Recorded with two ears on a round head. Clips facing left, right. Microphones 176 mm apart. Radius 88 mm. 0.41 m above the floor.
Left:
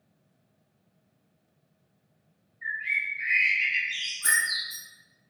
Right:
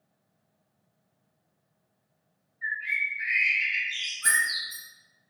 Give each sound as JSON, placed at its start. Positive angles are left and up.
{"t": 2.6, "sound": "a bird", "side_deg": 0, "distance_m": 1.5}
{"t": 4.2, "sound": "keys jangling", "side_deg": 20, "distance_m": 2.0}